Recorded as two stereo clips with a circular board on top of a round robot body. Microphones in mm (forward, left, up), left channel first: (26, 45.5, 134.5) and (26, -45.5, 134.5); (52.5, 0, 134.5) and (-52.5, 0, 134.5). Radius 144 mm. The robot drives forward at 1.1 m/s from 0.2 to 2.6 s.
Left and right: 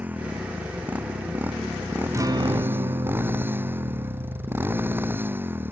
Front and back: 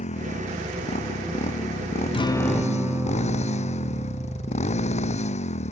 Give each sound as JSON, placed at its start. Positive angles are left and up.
{"t": 0.0, "sound": "a motorcycle", "azimuth_deg": -15}
{"t": 2.1, "sound": "a guitar", "azimuth_deg": -35}